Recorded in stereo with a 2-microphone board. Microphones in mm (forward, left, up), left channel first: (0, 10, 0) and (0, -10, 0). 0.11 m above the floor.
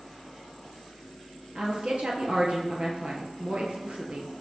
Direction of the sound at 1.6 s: 55° right (ahead or behind).